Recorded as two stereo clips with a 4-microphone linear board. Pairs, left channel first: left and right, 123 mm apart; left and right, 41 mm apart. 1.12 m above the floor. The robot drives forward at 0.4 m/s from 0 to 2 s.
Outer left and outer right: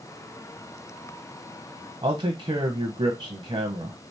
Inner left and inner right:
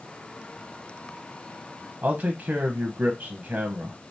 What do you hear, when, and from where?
2.0 s a man speaking: 50° right (ahead or behind), 0.7 m